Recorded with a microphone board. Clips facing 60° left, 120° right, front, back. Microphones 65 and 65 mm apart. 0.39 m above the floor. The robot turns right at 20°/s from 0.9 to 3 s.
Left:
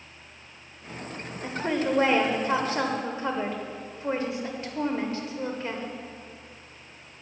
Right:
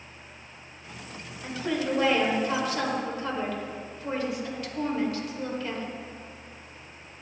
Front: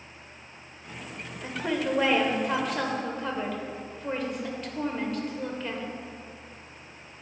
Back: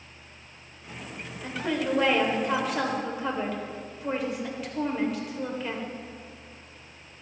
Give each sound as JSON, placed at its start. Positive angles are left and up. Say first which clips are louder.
{"t": 1.4, "sound": "a woman speaking", "louder": "left 2 dB, even", "azimuth_deg": 65, "distance_m": 1.2}